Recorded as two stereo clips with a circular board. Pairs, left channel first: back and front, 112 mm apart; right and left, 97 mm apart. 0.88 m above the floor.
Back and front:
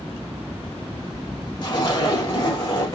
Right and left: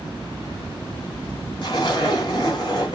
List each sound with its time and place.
1.6 s a zipper: 130° right, 2 m